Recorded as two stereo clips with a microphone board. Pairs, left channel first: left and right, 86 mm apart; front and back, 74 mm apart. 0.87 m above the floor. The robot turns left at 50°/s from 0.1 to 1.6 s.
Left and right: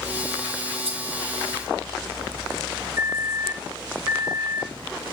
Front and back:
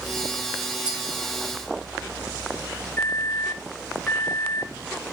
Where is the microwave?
50° right, 0.8 m.